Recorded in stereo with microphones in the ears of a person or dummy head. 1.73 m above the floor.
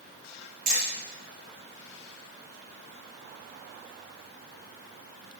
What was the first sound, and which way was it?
Hammering, 45° right (ahead or behind).